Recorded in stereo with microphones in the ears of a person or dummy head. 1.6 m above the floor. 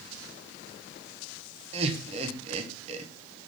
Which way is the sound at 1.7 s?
35° right (ahead or behind).